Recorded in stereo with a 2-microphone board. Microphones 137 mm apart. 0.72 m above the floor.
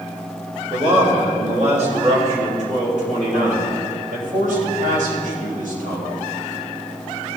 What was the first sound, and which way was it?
A man speaking, 45° right (ahead or behind).